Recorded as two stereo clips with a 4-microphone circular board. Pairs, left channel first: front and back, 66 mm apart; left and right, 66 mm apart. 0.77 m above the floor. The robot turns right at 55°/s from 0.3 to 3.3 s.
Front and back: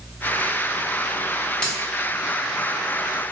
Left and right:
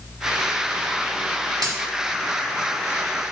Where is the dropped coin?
75° right, 0.7 m; by 1.8 s 65° right, 0.7 m.